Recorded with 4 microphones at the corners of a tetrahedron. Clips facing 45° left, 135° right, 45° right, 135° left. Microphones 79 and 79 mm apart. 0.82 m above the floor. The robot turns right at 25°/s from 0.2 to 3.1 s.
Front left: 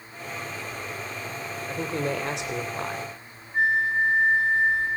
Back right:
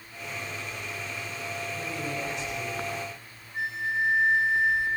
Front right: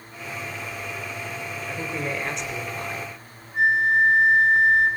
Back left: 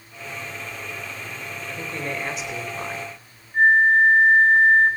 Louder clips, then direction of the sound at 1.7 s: Front left 9 dB, front right 1 dB; 30° left.